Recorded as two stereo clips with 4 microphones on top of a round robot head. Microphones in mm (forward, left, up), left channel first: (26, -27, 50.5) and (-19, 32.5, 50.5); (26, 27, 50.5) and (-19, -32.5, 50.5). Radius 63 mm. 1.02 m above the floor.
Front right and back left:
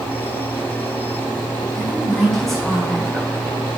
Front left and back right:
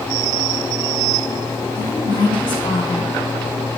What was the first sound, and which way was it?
A woman speaking, 35° left.